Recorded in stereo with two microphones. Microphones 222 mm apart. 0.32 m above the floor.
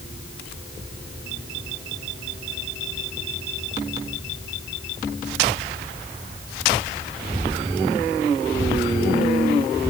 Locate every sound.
Only background noise.